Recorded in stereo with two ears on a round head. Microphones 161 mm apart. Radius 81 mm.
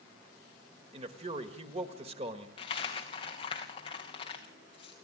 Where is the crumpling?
I don't hear crumpling.